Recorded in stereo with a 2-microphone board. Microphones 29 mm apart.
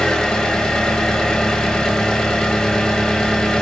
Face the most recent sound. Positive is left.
turn(degrees=25)  # may be behind; listen again after turning